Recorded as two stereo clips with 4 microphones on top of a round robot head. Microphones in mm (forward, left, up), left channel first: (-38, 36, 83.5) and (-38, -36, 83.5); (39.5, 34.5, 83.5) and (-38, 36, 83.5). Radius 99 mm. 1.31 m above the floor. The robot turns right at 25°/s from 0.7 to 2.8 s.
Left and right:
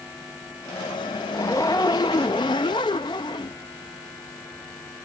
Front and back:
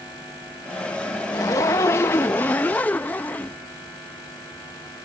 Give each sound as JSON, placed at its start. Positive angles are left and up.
{"t": 1.3, "sound": "a zipper", "azimuth_deg": 25}